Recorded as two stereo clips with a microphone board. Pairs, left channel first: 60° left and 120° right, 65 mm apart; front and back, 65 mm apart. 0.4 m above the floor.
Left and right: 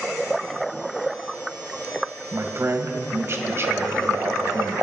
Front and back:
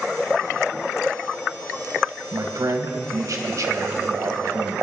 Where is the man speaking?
165° right, 1.7 m.